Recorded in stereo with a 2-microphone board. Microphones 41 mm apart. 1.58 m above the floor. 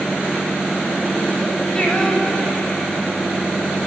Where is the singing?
20° left (ahead or behind), 9 m.